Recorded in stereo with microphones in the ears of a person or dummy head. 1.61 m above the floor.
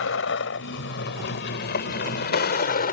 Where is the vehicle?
80° left; by 2.9 s 60° left (ahead or behind).